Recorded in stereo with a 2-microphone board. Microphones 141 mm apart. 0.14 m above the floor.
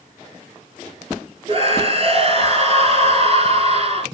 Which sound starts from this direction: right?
A scream, at 1.5 s.